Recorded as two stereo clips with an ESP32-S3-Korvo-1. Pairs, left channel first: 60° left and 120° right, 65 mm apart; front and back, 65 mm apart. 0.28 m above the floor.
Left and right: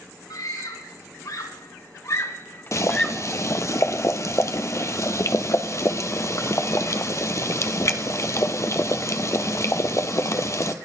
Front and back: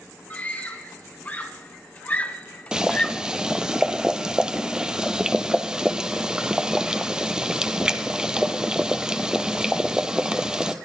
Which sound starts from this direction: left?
Boiling, at 2.7 s.